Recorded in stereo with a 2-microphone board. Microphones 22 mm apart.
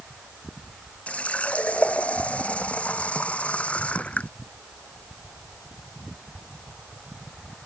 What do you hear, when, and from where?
1.1 s a running tap: 70° left (ahead or behind)